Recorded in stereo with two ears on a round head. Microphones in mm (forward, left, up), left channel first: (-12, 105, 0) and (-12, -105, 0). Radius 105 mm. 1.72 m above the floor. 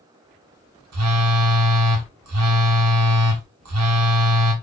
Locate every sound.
0.9 s a phone buzzing: 70° right (ahead or behind), 1.0 m